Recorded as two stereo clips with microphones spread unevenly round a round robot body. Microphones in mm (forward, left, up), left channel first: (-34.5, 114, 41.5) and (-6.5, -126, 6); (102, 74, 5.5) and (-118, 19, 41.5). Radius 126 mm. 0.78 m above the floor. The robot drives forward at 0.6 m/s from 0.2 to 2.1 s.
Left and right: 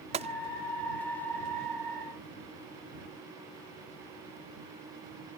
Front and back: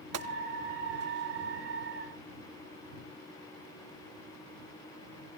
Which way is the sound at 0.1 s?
140° right.